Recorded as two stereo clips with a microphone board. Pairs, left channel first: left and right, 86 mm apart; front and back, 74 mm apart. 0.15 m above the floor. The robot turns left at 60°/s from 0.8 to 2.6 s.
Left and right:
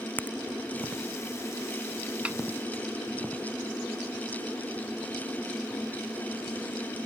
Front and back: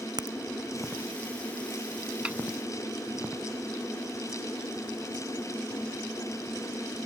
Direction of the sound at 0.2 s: 160° left.